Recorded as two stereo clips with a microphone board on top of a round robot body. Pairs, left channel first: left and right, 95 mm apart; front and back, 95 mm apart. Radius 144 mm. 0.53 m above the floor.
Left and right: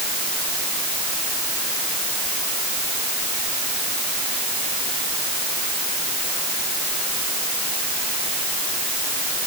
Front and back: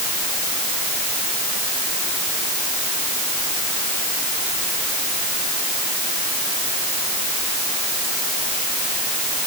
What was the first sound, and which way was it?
Only background noise.